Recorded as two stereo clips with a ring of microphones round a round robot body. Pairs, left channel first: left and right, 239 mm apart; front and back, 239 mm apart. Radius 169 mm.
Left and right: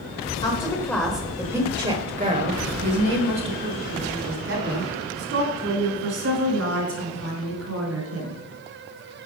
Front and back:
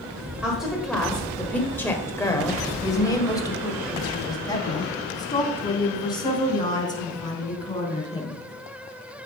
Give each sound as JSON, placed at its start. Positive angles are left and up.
{"t": 0.4, "sound": "a woman speaking", "azimuth_deg": 100, "distance_m": 1.2}